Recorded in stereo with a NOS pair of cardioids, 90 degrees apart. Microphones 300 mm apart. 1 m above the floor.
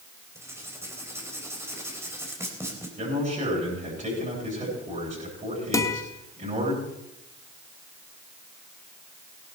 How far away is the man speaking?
About 8 m.